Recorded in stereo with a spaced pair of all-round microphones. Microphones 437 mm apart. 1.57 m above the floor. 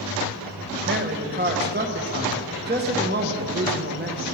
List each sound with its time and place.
0.9 s a man speaking: 25° right (ahead or behind), 1.6 m